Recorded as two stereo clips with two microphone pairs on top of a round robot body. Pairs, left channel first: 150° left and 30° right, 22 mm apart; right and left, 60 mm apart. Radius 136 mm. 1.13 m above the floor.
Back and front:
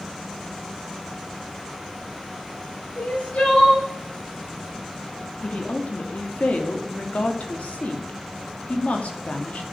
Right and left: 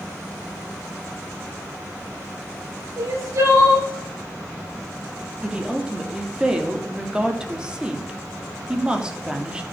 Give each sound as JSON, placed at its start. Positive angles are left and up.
{"t": 3.0, "sound": "crying", "azimuth_deg": 125, "distance_m": 6.0}
{"t": 5.4, "sound": "a woman speaking", "azimuth_deg": 165, "distance_m": 3.0}